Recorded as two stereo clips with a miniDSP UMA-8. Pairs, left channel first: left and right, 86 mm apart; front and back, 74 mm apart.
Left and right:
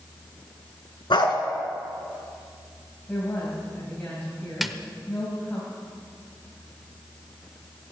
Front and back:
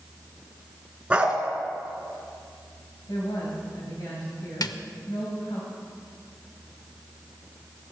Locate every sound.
1.1 s a dog barking: 110° left, 1.7 m
3.1 s a woman speaking: 20° left, 3 m
4.6 s a snare drum: 5° right, 0.6 m